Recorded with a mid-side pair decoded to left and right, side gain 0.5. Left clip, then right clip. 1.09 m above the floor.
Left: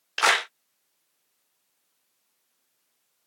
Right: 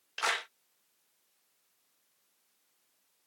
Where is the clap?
55° left.